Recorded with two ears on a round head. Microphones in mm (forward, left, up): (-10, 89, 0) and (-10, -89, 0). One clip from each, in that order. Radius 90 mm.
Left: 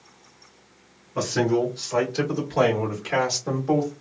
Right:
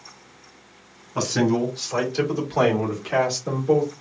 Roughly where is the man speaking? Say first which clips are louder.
Even; right.